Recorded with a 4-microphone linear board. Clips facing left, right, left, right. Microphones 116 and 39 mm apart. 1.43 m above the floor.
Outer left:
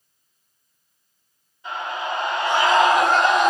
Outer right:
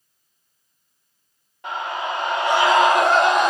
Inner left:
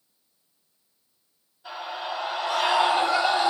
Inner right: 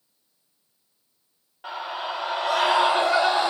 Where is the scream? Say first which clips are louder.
Outer right 1 dB, inner right 2 dB; 85° right, 4.5 m; by 3.5 s 80° right, 5.5 m.